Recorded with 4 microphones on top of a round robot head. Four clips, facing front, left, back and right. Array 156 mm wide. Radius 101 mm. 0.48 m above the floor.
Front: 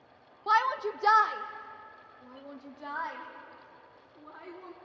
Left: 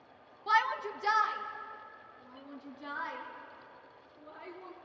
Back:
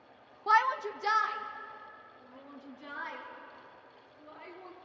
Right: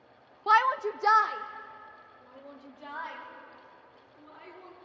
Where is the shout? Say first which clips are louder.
Right 6 dB, even; 90° right, 0.9 m; by 4.7 s 25° right, 5.5 m.